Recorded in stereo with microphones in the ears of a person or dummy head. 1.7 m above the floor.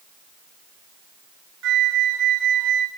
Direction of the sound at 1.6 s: 70° right (ahead or behind).